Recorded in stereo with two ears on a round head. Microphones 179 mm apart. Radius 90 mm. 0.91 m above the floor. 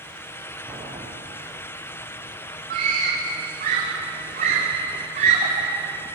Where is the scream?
40° right (ahead or behind), 3 m.